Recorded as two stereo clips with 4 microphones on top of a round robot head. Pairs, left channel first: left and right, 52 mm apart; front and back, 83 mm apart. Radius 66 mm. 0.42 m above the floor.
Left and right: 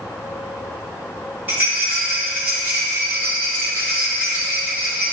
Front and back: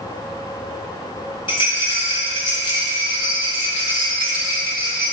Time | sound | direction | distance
1.5 | a rattle | 30° right | 2.5 m